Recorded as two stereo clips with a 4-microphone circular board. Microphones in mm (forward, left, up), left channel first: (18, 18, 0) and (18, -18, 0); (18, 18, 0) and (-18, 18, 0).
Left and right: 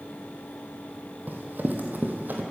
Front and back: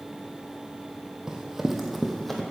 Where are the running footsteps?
110° right, 1.5 m; by 2.4 s 80° right, 1.7 m.